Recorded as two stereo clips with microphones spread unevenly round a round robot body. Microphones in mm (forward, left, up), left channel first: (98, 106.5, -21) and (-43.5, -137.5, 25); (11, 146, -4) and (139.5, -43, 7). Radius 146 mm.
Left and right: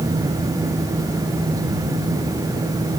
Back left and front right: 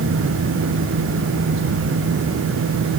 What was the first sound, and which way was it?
Only background noise.